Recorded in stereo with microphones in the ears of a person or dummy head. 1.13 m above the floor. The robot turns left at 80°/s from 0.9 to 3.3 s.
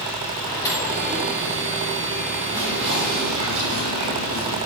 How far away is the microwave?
About 3 m.